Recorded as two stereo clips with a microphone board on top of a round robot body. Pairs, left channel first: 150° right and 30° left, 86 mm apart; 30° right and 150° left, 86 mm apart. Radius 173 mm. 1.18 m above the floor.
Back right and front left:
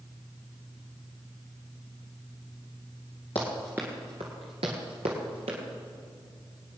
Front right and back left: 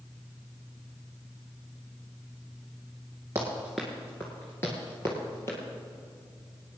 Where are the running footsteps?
160° right, 1.2 m; by 5.6 s 30° left, 2.5 m.